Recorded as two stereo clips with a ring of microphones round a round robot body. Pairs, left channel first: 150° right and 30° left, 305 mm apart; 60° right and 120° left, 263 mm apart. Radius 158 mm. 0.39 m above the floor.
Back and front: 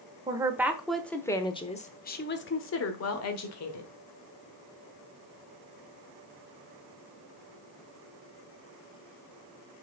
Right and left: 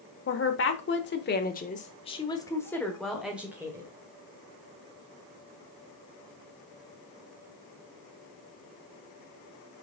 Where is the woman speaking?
45° right, 1.3 m; by 3.9 s 160° right, 1.5 m.